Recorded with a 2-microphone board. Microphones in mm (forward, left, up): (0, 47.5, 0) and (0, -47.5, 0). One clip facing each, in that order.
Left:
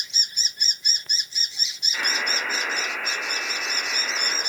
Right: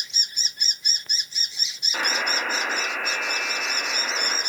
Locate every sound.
1.9 s a buzzer: 45° right (ahead or behind), 1.0 m